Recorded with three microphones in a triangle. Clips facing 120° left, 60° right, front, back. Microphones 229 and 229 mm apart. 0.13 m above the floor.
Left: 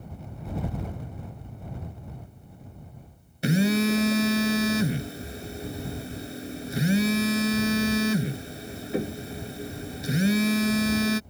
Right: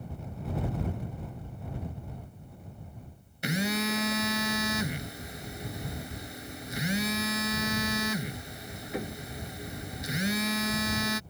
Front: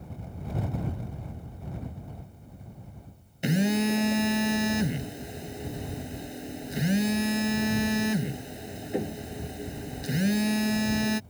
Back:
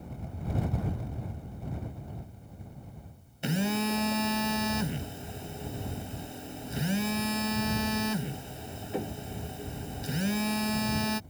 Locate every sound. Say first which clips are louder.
3.4 s a phone buzzing: left 8 dB, front 5 dB; 65° left